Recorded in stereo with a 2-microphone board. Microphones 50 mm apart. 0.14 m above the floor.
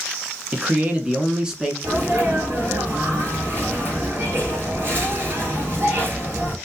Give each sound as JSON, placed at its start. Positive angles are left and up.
{"t": 0.5, "sound": "a man speaking", "side_deg": -30, "distance_m": 1.2}
{"t": 1.8, "sound": "a sneeze", "side_deg": -40, "distance_m": 3.0}